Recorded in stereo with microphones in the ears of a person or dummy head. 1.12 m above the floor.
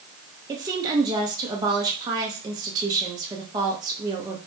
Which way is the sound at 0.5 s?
20° right (ahead or behind).